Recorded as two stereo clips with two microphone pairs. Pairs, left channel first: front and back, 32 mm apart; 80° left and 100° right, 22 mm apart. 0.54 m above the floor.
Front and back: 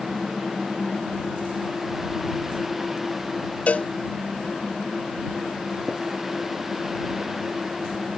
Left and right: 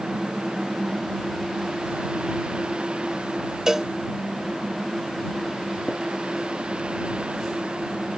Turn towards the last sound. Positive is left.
turn(degrees=115)